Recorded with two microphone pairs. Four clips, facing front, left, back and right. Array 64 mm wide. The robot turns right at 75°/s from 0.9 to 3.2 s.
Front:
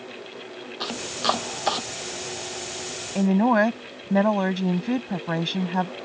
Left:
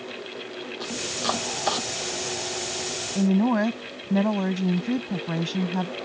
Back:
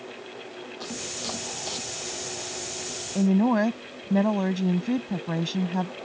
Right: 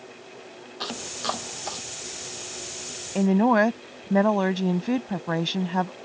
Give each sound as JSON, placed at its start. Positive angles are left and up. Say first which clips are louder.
{"t": 0.8, "sound": "chopping", "louder": "left 1 dB, front 11 dB", "azimuth_deg": -35}
{"t": 3.1, "sound": "a woman speaking", "louder": "right 2 dB, front 2 dB", "azimuth_deg": -45}